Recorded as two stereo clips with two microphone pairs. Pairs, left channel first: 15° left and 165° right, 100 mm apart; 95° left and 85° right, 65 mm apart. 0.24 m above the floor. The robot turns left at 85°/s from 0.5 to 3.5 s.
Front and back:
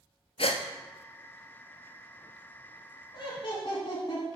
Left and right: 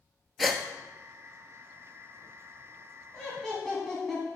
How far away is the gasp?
About 0.9 m.